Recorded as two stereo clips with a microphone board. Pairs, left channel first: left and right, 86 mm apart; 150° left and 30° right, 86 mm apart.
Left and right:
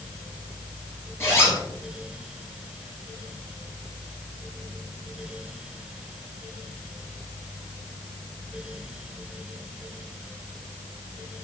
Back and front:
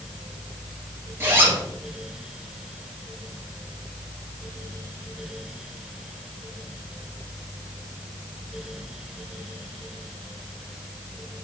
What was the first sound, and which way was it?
A zipper, 30° left.